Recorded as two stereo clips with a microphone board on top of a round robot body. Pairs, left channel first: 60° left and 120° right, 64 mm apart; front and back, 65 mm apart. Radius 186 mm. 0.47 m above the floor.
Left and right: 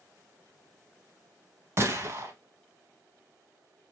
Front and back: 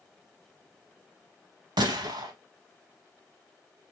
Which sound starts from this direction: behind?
A gunshot, at 1.8 s.